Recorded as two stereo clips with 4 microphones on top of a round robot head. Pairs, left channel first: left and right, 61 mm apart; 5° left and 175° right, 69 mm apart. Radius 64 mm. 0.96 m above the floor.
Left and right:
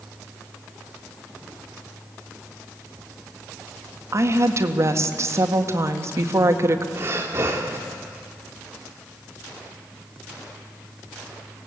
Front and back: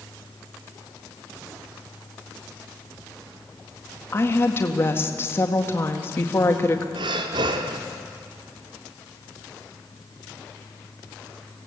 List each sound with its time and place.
4.1 s a woman speaking: 55° right, 1.7 m
7.0 s breathing: 155° right, 1.4 m